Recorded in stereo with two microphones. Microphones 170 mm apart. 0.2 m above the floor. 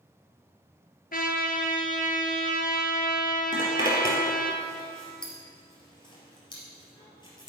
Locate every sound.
1.1 s a trumpet: 60° left (ahead or behind), 1.4 m
3.5 s a zipper: 25° left (ahead or behind), 2.5 m